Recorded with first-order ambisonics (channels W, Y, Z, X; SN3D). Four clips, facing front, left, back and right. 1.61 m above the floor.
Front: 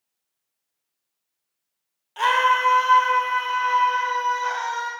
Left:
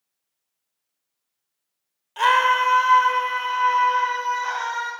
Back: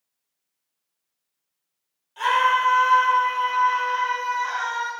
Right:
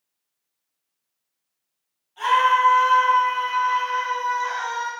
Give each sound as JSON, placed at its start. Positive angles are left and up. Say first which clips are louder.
{"t": 2.2, "sound": "a scream", "louder": "even, front 1 dB", "azimuth_deg": 55, "distance_m": 0.8}